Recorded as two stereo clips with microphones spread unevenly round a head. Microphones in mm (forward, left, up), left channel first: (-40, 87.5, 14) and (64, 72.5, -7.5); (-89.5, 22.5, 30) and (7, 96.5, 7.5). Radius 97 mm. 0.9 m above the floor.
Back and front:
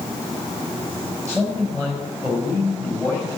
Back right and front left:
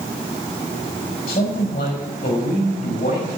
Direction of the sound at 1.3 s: 85° right.